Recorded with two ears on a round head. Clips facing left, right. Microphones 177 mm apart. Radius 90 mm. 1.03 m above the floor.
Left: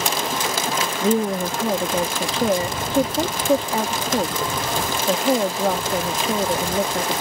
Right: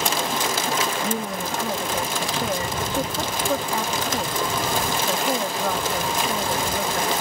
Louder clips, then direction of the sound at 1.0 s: Left 7 dB; 20° left (ahead or behind).